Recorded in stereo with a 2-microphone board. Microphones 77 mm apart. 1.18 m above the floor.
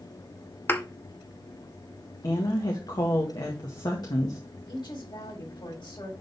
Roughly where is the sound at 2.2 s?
Left.